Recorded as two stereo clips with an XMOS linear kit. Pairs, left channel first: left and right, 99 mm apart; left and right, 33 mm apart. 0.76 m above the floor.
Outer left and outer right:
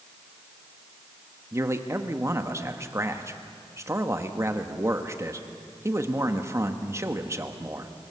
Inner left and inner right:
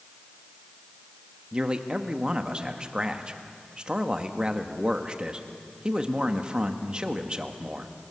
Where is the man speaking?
30° right (ahead or behind), 1.2 m.